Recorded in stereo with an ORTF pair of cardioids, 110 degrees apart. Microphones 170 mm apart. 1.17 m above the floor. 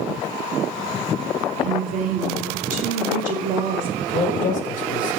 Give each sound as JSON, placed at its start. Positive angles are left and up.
{"t": 1.6, "sound": "a woman speaking", "azimuth_deg": -55, "distance_m": 3.0}
{"t": 4.0, "sound": "a man speaking", "azimuth_deg": 40, "distance_m": 1.2}